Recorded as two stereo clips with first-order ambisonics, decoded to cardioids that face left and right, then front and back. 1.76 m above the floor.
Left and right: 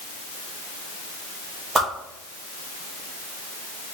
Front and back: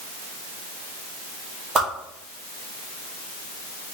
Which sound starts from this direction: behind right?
A whoosh, at 1.8 s.